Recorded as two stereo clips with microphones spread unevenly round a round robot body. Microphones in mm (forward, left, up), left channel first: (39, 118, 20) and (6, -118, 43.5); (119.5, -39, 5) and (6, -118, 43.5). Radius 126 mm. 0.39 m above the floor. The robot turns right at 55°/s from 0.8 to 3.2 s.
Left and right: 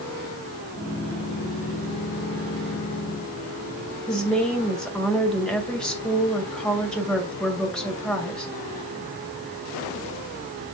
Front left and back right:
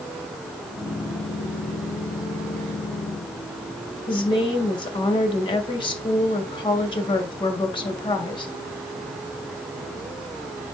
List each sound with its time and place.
4.1 s a woman speaking: straight ahead, 2.5 m